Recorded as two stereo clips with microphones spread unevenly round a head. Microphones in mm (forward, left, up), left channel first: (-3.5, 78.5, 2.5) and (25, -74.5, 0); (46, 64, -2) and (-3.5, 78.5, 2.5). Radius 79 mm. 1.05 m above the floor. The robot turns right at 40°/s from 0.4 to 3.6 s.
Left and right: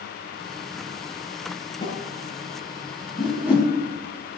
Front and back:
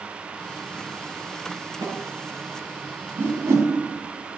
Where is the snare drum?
165° left, 7 m; by 2.0 s 175° left, 7 m.